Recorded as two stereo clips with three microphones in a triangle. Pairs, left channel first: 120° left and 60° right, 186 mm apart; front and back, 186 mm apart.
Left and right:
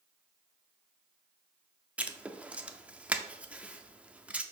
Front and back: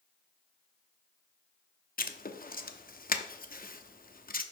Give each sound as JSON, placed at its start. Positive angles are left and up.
{"t": 2.0, "sound": "writing", "azimuth_deg": 20, "distance_m": 0.6}